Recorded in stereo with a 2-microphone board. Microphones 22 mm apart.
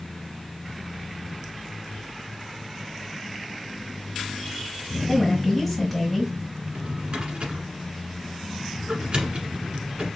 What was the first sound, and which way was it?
A woman speaking, 5° right (ahead or behind).